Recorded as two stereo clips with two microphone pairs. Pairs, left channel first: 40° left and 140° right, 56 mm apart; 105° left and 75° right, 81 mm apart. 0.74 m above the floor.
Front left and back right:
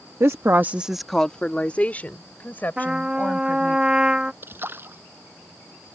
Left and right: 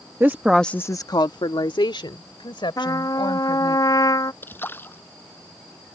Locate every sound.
0.2 s a woman speaking: 125° right; by 3.8 s 95° left
2.8 s a trumpet: 150° left
4.4 s a splash: 170° left